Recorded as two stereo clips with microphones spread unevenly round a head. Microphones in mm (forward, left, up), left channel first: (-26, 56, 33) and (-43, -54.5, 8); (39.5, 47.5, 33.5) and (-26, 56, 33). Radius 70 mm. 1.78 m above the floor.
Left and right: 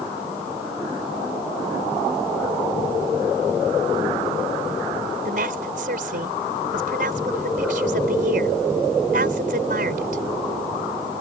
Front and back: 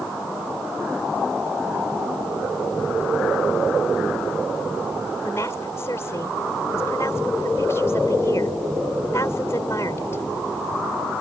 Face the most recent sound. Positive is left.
turn(degrees=-75)